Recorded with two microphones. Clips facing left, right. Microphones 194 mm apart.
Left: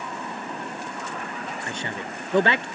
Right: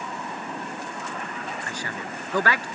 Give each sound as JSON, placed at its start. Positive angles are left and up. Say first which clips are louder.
{"t": 1.7, "sound": "a man speaking", "louder": "left 2 dB", "side_deg": 25}